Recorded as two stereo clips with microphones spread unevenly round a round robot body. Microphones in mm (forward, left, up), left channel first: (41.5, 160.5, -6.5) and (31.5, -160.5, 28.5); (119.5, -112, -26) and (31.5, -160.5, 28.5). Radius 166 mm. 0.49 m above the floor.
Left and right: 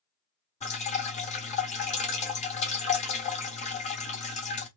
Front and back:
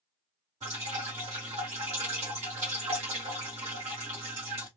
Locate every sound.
0.6 s dripping: 145° left, 0.8 m